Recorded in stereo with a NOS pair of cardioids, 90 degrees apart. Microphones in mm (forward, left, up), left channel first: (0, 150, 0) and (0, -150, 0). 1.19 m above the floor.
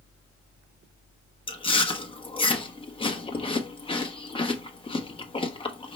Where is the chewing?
15° left, 1.2 m.